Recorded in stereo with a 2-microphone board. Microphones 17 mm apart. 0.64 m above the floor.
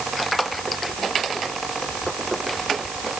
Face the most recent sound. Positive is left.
No sound to turn to.